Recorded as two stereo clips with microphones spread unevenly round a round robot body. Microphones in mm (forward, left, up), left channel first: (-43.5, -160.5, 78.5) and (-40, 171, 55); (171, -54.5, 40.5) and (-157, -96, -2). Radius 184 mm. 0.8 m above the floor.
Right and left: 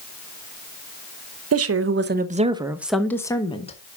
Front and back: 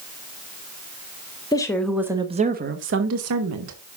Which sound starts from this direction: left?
A woman speaking, at 1.5 s.